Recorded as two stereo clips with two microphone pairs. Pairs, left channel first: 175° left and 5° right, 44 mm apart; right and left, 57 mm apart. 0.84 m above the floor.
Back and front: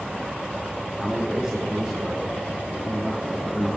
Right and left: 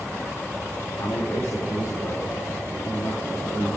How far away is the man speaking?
About 2.5 m.